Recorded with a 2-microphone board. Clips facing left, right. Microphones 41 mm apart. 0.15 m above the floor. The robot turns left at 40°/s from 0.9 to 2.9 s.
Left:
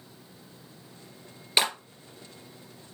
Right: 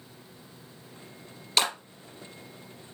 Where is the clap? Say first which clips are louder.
Left 1 dB; 20° left (ahead or behind), 2.5 m; by 1.7 s 15° left (ahead or behind), 2.5 m.